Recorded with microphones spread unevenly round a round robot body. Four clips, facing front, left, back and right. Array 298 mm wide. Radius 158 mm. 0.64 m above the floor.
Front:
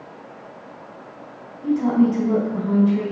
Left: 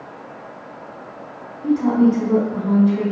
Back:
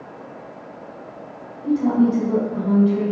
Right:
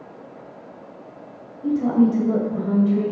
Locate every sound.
1.6 s a woman speaking: 70° right, 3 m